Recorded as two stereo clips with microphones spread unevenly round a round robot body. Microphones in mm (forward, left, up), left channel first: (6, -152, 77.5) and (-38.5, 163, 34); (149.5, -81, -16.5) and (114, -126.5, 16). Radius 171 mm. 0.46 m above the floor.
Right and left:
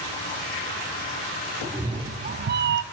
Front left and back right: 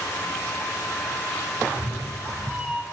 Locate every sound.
1.6 s a cat meowing: 175° left, 0.7 m; by 2.8 s 100° left, 0.5 m